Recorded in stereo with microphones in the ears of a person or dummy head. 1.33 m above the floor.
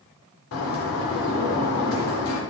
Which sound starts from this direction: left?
A bird, at 0.5 s.